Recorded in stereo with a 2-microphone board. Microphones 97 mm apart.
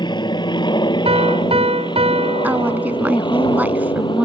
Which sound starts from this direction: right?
A piano, at 1.1 s.